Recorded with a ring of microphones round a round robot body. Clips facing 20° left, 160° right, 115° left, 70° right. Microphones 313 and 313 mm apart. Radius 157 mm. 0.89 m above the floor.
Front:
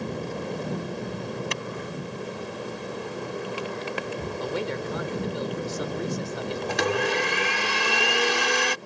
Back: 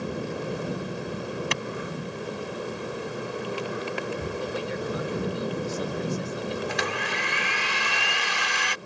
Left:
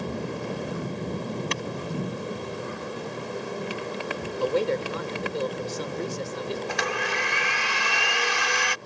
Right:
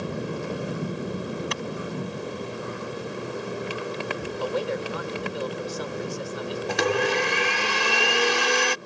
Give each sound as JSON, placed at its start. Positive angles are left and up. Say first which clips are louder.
{"t": 1.5, "sound": "a clap", "louder": "back 1 dB, even", "azimuth_deg": 170}
{"t": 4.4, "sound": "a man speaking", "louder": "front 1 dB, left 4 dB", "azimuth_deg": 55}
{"t": 6.7, "sound": "a blender", "louder": "front 6 dB, right 7 dB", "azimuth_deg": -20}